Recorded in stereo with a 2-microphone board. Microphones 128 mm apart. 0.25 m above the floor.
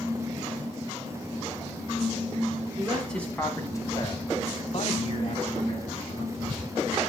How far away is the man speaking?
About 1.9 m.